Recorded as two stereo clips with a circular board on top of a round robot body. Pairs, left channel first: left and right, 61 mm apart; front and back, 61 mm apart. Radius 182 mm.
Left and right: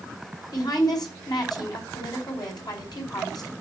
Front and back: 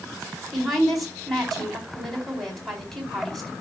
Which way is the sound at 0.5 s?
90° left.